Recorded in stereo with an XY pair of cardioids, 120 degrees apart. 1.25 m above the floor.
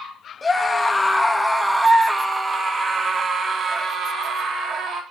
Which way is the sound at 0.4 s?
20° left.